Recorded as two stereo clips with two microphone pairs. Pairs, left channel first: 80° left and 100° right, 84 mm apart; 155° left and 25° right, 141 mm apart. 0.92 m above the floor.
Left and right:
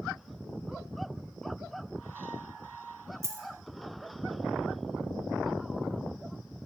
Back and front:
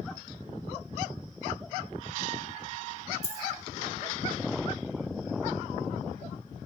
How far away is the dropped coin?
About 1.2 m.